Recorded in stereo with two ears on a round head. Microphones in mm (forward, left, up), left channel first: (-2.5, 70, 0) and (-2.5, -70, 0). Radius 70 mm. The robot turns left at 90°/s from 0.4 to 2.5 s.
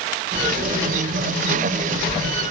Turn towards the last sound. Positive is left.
No sound to turn to.